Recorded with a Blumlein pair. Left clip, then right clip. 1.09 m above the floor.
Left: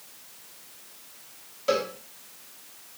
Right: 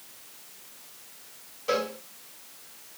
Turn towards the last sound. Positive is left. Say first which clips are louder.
# left 2 dB
turn(degrees=20)